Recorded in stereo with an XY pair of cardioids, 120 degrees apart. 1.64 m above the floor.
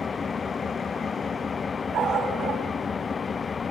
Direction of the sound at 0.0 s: 35° left.